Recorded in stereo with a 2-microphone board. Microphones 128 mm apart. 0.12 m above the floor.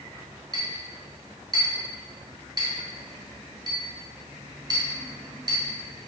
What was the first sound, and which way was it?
A clink, 35° right (ahead or behind).